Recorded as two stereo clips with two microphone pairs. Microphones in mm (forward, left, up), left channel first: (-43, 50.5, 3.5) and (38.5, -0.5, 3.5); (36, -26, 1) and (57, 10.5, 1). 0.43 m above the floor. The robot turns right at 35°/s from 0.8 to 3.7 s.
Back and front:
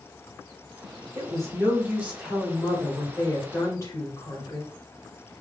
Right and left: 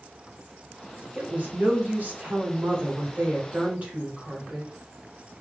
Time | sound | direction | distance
1.1 | a woman speaking | 10° left | 1.7 m